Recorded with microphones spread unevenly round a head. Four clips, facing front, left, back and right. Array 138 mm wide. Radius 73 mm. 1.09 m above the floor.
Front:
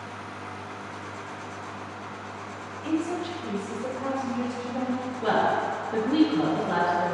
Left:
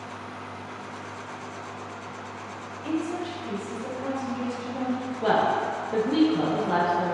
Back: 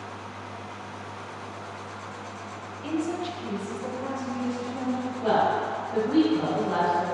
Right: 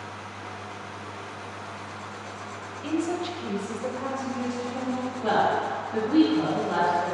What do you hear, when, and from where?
2.8 s a woman speaking: 110° right, 1.1 m; by 5.1 s 10° left, 1.2 m
5.2 s a woman speaking: 75° left, 1.2 m